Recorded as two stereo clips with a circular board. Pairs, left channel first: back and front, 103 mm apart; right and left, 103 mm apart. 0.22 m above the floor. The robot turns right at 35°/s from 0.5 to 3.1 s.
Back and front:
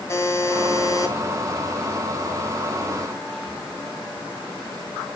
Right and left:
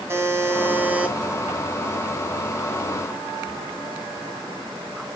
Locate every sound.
0.1 s a buzzer: 140° left, 2.0 m; by 1.1 s 160° left, 2.0 m